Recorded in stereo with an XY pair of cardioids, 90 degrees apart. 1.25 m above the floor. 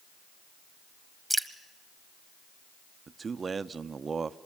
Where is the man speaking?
40° right, 0.7 m.